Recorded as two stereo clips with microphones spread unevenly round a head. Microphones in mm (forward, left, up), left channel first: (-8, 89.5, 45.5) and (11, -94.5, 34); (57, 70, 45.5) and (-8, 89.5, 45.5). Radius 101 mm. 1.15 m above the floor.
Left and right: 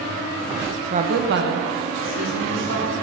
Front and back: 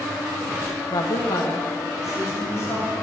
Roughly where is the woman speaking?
Ahead right.